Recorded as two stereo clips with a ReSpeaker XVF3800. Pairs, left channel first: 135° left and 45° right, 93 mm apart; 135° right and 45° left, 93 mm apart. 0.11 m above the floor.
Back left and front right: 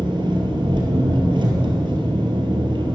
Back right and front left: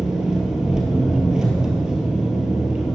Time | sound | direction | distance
0.0 | an engine running | 35° right | 1.7 m